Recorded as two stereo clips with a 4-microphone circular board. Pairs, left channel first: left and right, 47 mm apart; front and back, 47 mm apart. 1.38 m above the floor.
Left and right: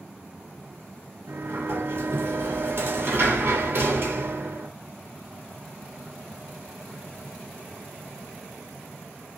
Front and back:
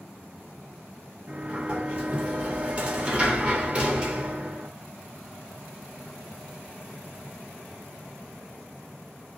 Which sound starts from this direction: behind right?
A sliding door, at 1.3 s.